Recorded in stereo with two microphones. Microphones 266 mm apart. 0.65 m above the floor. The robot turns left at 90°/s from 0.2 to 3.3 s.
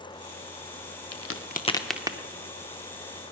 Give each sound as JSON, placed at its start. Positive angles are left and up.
{"t": 1.1, "sound": "a crack", "side_deg": 70, "distance_m": 0.6}